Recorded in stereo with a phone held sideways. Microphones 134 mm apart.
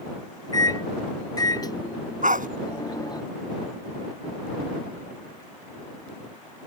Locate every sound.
0.5 s a microwave: 25° left (ahead or behind)
2.2 s a dog barking: 70° right (ahead or behind)